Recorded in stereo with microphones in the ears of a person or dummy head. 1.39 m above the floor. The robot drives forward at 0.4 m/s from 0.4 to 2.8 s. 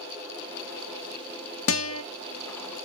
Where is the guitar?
70° left (ahead or behind), 0.6 m; by 2.0 s 75° left (ahead or behind), 0.6 m.